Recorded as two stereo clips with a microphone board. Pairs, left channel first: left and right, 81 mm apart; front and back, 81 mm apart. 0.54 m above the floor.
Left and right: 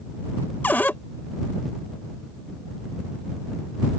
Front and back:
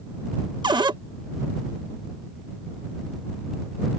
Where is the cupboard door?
160° left.